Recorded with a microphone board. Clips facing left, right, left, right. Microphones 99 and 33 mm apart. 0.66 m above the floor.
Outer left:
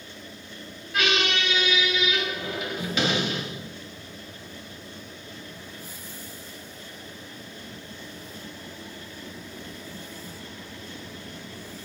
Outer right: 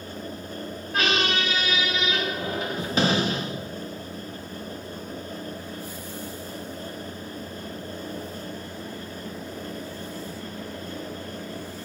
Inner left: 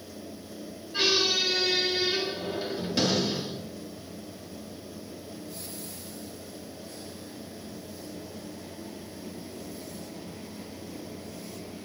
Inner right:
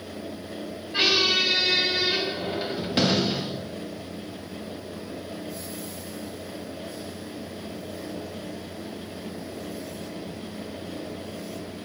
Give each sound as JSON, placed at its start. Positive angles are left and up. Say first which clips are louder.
{"t": 0.9, "sound": "a squeak", "louder": "outer right 1 dB, inner right 4 dB", "side_deg": -40, "distance_m": 0.6}